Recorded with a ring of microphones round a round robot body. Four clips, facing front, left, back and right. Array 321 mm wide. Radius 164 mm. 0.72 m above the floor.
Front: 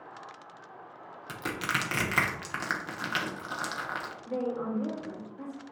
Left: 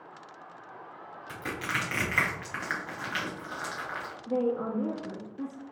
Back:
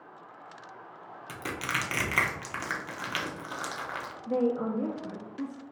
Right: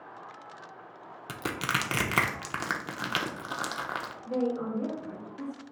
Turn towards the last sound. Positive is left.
turn(degrees=175)